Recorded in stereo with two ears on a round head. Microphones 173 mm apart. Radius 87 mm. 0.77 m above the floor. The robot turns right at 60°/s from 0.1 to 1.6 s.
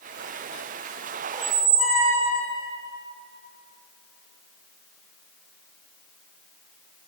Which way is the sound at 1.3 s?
20° right (ahead or behind).